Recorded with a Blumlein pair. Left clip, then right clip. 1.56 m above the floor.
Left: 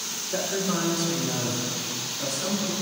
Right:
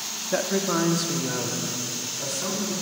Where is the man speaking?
55° right, 0.6 m; by 2.7 s 80° right, 2 m.